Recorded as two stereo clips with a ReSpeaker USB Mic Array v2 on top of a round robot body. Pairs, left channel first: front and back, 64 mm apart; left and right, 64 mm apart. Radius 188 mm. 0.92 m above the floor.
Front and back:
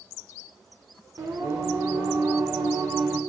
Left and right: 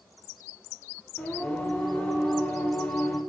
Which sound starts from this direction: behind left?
Singing, at 1.2 s.